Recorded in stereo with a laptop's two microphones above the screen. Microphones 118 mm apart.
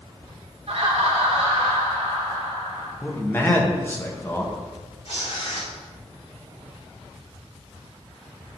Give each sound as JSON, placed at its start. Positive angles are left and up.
{"t": 0.7, "sound": "laughter", "side_deg": -60, "distance_m": 0.6}
{"t": 3.0, "sound": "a man speaking", "side_deg": 20, "distance_m": 1.2}
{"t": 5.0, "sound": "tearing paper", "side_deg": 80, "distance_m": 2.5}